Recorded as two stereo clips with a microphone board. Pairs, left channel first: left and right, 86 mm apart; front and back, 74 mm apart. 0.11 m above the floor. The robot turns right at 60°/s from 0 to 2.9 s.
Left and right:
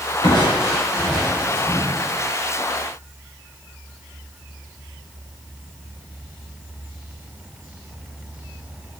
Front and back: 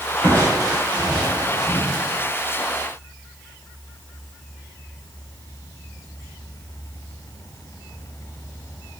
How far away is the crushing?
About 8 m.